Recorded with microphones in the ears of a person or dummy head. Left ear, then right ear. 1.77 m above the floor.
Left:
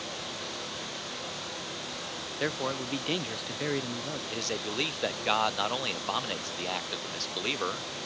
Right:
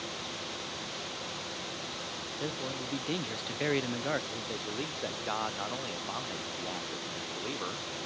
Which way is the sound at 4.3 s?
80° left.